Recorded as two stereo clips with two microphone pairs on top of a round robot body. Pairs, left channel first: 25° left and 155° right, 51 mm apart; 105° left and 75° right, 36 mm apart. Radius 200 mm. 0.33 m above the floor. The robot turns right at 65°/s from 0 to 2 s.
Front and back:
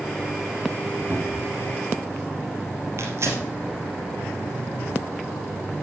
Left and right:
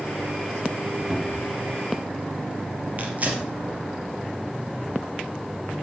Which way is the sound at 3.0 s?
120° right.